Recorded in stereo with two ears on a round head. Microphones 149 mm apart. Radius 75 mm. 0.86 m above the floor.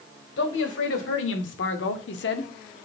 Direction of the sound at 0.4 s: 80° left.